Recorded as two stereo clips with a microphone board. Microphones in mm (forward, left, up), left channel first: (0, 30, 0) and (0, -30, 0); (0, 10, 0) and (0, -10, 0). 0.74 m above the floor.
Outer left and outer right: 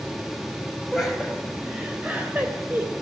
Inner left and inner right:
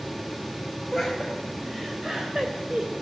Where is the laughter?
5° right (ahead or behind), 4.5 m; by 2.9 s 40° right (ahead or behind), 3 m.